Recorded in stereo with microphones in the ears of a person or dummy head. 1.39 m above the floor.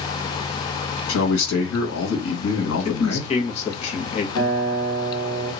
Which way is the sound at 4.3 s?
5° left (ahead or behind).